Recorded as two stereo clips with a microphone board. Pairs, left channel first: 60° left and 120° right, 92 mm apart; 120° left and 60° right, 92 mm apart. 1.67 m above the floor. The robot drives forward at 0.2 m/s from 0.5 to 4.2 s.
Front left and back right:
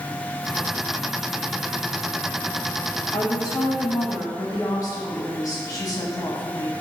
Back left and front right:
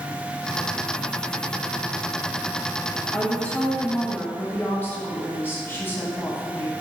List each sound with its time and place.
3.1 s a woman speaking: 45° left, 0.8 m; by 6.7 s 65° left, 0.7 m